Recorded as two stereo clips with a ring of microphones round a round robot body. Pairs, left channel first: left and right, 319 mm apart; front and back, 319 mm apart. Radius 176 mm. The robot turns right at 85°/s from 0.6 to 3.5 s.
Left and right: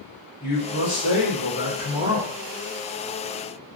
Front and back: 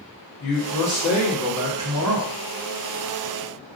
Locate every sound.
0.4 s a man speaking: 10° left, 2.0 m; by 2.3 s 155° left, 2.0 m